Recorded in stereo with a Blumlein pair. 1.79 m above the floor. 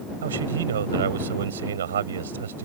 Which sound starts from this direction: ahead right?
A man speaking, at 0.2 s.